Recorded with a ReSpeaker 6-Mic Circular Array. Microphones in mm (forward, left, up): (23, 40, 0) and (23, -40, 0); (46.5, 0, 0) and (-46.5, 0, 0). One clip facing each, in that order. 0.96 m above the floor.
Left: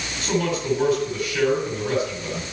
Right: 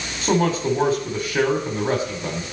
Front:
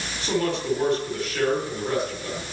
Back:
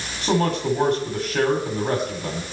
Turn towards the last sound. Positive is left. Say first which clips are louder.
# right 4 dB, back 4 dB
turn(degrees=-130)